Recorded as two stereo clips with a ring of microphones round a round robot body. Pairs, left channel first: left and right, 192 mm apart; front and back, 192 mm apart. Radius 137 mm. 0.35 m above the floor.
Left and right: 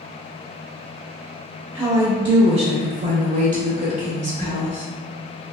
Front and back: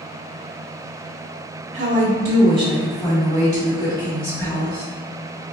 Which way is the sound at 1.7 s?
165° right.